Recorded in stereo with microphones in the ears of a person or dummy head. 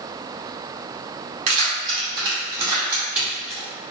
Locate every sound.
1.5 s keys jangling: 40° right (ahead or behind), 1.7 m; by 3.6 s centre (ahead or behind), 1.6 m